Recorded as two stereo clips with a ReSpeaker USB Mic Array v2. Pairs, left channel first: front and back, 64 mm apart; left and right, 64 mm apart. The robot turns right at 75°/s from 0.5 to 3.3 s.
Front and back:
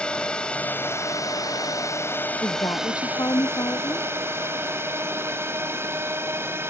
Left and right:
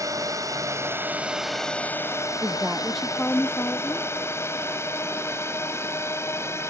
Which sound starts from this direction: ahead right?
A woman speaking, at 2.4 s.